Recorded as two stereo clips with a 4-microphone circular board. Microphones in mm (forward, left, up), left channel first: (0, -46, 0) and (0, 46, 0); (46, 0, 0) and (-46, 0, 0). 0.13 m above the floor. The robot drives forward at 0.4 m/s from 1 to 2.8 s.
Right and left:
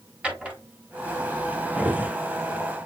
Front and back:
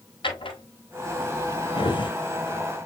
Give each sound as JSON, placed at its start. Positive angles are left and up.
{"t": 0.2, "sound": "a drawer", "azimuth_deg": 15, "distance_m": 1.5}